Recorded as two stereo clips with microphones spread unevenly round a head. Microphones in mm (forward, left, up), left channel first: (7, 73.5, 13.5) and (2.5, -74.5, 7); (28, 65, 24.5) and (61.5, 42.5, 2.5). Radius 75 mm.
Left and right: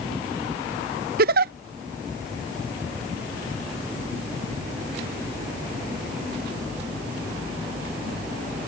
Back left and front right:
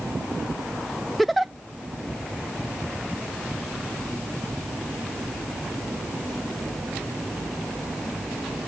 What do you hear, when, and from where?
1.2 s a giggle: 115° right